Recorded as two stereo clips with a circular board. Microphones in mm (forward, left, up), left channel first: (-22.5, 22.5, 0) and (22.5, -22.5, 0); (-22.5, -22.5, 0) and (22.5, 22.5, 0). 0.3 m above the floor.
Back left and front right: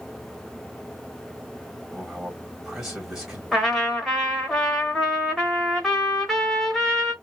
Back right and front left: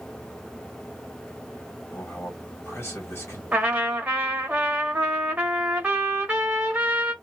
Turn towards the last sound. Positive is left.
turn(degrees=60)